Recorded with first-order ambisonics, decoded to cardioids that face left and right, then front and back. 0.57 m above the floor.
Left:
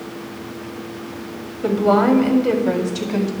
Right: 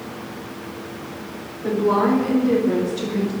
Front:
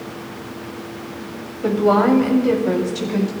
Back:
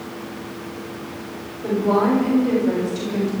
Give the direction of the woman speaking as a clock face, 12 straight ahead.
10 o'clock.